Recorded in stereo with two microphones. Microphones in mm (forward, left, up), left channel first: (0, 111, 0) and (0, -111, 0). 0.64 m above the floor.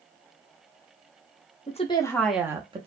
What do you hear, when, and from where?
1.7 s a woman speaking: 30° left (ahead or behind), 0.7 m; by 2.9 s 30° right (ahead or behind), 0.7 m